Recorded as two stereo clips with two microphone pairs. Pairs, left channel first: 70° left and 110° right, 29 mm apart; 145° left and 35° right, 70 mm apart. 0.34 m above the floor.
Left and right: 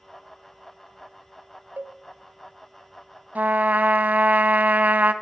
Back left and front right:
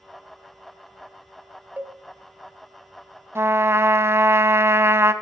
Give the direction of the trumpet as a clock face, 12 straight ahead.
3 o'clock.